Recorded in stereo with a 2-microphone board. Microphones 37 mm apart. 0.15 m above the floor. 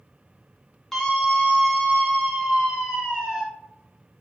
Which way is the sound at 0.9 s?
10° left (ahead or behind).